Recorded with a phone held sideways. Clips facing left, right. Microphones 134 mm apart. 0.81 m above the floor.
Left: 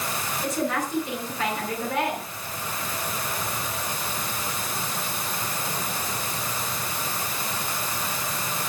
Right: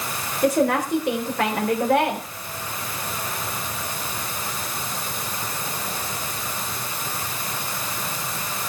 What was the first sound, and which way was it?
A woman speaking, 75° right (ahead or behind).